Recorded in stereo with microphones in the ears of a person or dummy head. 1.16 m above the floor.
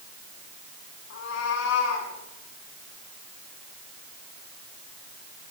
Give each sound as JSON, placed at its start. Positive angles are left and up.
{"t": 1.1, "sound": "a cat meowing", "side_deg": 70, "distance_m": 6.0}